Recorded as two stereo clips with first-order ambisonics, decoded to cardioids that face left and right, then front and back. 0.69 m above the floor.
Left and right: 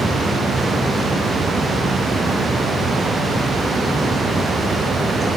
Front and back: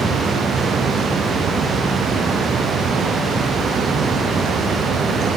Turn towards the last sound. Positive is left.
No sound to turn to.